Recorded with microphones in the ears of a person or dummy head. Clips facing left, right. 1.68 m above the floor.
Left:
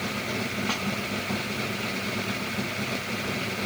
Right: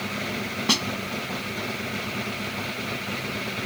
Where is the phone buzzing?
I don't hear a phone buzzing.